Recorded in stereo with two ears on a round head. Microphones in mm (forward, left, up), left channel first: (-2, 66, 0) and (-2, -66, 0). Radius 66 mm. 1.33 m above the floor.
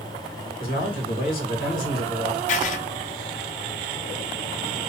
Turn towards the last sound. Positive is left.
turn(degrees=50)  # may be behind; listen again after turning